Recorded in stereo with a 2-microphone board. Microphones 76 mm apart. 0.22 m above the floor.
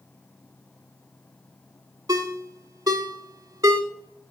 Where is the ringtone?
55° right (ahead or behind), 0.7 m.